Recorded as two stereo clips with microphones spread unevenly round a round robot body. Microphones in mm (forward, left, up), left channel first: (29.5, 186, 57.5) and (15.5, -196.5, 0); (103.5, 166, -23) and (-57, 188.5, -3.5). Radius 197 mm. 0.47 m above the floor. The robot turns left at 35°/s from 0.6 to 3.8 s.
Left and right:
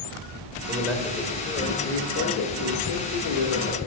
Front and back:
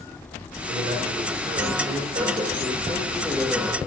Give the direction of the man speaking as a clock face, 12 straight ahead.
6 o'clock.